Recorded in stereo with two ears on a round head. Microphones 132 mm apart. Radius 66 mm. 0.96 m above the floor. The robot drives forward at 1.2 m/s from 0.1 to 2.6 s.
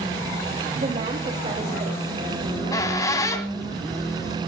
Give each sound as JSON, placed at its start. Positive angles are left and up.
{"t": 0.8, "sound": "a woman speaking", "side_deg": -55, "distance_m": 3.0}
{"t": 2.4, "sound": "a squeak", "side_deg": 25, "distance_m": 2.0}